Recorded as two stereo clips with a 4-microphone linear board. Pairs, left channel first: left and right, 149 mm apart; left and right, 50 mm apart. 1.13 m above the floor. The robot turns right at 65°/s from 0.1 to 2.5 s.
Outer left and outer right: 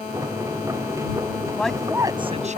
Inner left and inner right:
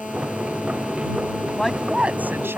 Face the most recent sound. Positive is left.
turn(degrees=-130)